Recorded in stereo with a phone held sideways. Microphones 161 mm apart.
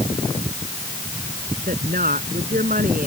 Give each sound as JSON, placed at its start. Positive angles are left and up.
{"t": 1.7, "sound": "a woman speaking", "side_deg": -60}